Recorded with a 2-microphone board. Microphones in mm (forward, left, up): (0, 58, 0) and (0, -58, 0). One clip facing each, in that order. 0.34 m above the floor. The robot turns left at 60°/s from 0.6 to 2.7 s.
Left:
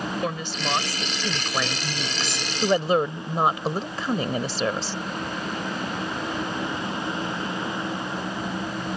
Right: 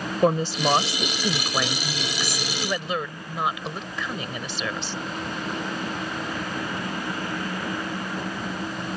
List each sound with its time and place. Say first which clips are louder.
0.2 s a woman speaking: right 7 dB; 120° right; by 5.0 s 115° left